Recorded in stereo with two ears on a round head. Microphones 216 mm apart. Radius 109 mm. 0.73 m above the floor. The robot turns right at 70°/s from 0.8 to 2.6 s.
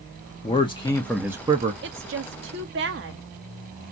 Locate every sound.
0.4 s a man speaking: 155° left, 0.6 m; by 1.7 s 140° right, 0.6 m
1.8 s a woman speaking: 115° right, 0.7 m; by 3.2 s 60° right, 0.7 m